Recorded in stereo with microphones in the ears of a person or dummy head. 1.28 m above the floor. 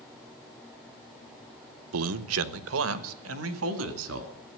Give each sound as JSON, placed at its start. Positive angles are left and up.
{"t": 1.9, "sound": "a man speaking", "side_deg": -80, "distance_m": 0.7}